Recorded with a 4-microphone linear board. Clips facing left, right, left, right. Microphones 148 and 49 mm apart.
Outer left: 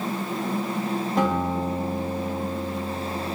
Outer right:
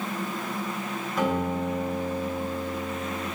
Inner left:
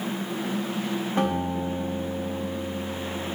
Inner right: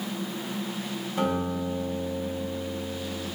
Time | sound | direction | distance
1.2 | a guitar | 50° left (ahead or behind) | 1.7 m